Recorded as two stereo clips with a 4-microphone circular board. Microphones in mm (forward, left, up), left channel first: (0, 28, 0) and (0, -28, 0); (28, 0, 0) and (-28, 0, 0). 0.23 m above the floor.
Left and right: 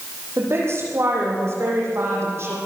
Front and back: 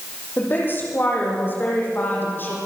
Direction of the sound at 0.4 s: 50° right.